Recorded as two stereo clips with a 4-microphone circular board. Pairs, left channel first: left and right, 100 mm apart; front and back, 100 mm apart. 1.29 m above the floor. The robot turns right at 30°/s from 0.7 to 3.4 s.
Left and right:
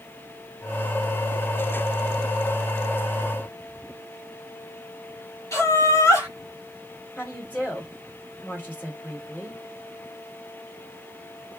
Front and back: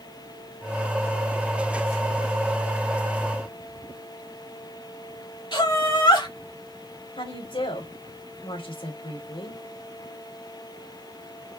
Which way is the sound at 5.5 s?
35° left.